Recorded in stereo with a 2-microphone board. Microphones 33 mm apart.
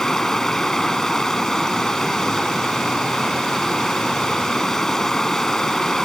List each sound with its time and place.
0.0 s running water: 15° left (ahead or behind)